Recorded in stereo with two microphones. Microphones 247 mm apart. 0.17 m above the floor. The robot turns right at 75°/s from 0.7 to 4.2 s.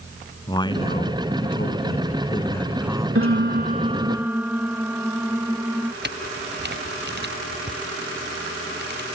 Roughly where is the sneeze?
No sneeze in this recording.